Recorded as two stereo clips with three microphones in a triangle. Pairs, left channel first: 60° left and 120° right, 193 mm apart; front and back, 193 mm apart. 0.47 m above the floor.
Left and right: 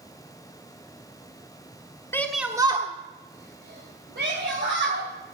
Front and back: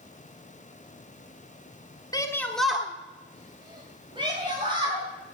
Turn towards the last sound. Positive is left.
turn(degrees=-120)